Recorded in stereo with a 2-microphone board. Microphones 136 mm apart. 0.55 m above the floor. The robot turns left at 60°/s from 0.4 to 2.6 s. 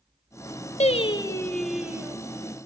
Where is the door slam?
I don't hear a door slam.